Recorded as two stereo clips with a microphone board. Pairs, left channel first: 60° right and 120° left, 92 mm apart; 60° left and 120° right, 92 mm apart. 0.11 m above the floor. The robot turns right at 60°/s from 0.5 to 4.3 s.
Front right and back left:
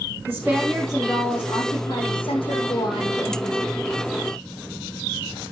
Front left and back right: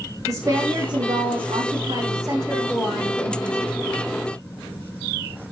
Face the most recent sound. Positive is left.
turn(degrees=60)